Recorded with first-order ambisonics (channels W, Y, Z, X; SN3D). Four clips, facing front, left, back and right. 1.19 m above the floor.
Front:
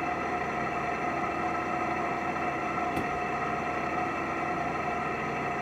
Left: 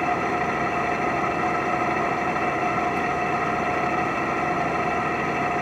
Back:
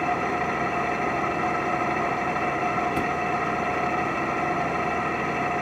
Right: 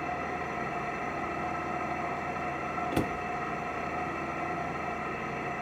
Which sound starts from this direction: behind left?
An engine running, at 0.0 s.